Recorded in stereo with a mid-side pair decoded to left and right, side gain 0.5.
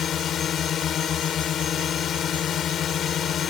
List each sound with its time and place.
0.0 s a drone: 55° left